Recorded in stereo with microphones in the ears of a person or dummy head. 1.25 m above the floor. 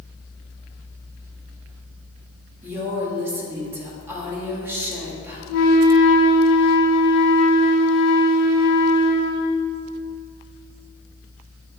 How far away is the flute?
About 1.6 m.